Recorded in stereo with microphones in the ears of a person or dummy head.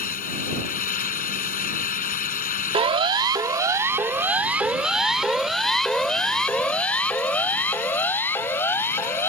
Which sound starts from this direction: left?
A fan, at 0.0 s.